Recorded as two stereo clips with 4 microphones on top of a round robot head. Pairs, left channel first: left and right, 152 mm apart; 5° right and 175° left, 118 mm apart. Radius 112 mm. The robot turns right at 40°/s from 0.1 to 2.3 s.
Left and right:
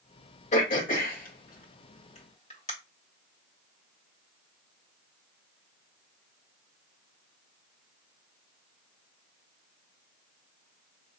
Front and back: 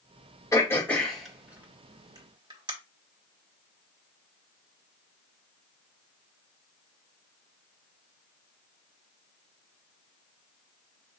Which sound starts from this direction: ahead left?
Throat clearing, at 0.5 s.